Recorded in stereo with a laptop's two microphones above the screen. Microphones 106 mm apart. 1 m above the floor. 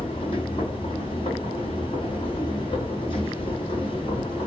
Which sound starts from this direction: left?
A machine running, at 0.0 s.